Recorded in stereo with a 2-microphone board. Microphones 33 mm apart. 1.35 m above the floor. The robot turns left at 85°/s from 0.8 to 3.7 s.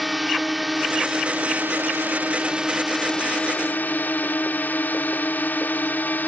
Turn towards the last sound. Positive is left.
turn(degrees=110)